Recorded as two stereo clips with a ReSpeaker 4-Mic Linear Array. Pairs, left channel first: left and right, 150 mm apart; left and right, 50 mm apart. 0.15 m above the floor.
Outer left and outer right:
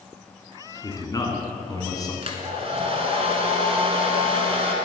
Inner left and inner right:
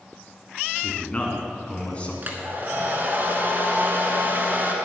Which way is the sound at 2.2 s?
40° right (ahead or behind).